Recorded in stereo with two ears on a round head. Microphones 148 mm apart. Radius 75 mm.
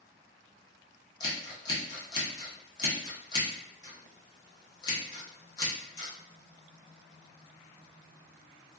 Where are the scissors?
25° left (ahead or behind), 0.9 m.